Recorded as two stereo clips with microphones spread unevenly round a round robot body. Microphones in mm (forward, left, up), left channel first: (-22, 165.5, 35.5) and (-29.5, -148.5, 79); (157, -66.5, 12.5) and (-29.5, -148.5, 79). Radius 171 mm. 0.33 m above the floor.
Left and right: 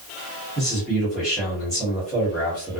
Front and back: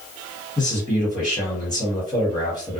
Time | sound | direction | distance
0.6 | a man speaking | 10° left | 1.5 m